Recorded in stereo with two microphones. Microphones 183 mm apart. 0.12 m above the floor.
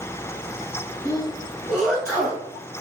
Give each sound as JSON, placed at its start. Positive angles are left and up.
{"t": 1.1, "sound": "a sneeze", "side_deg": -5, "distance_m": 1.5}